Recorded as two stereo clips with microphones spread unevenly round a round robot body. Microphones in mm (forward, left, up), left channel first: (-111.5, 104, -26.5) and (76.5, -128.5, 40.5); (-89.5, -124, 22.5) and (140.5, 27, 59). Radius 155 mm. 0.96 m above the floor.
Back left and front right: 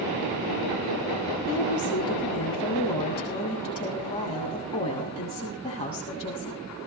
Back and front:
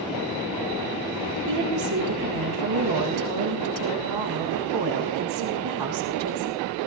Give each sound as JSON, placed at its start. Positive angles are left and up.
{"t": 1.5, "sound": "a woman speaking", "azimuth_deg": 55, "distance_m": 7.5}